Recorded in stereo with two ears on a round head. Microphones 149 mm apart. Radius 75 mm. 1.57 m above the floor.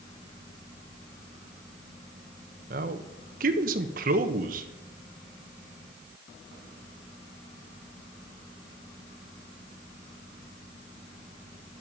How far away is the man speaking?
About 1.1 m.